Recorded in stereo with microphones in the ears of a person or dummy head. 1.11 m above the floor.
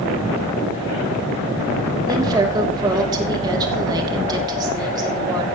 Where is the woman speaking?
20° right (ahead or behind), 3 m.